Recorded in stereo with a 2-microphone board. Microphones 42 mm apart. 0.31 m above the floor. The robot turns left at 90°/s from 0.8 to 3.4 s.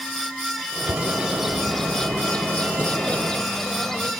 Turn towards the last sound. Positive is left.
turn(degrees=15)  # may be behind; listen again after turning